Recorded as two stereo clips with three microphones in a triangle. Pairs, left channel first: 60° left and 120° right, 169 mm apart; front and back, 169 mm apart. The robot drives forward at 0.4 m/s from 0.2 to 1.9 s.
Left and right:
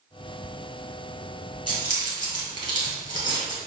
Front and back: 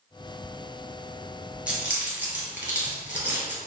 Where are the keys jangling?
100° left, 1.4 m; by 3.6 s 105° left, 1.4 m.